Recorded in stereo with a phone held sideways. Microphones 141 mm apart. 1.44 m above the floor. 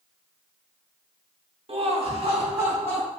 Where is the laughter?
45° right (ahead or behind), 0.8 m.